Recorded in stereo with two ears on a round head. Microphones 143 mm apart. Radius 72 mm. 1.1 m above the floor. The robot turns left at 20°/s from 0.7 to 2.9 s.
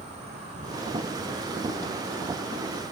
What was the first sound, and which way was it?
An insect, 135° right.